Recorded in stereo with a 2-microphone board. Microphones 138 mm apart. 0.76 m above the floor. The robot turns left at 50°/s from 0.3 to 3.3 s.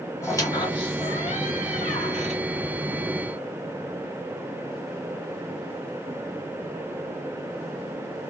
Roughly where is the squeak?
Left.